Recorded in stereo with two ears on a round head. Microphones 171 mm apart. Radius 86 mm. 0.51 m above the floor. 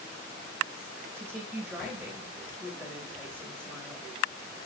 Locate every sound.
1.1 s a woman speaking: 5° left (ahead or behind), 2.5 m